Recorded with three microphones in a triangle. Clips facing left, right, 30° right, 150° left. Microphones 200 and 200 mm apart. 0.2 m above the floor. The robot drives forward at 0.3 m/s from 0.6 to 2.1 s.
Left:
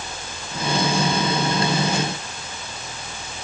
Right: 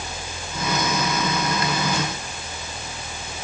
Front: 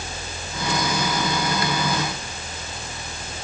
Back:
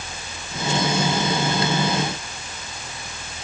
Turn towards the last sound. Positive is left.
No sound to turn to.